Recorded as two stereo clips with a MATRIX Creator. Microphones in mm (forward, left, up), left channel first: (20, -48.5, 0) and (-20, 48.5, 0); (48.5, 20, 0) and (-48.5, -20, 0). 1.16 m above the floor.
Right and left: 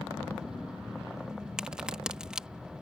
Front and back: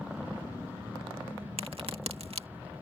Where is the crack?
165° right.